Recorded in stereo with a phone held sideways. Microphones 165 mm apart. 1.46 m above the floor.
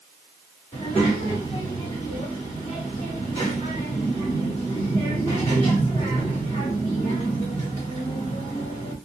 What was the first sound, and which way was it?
A child speaking, 30° left (ahead or behind).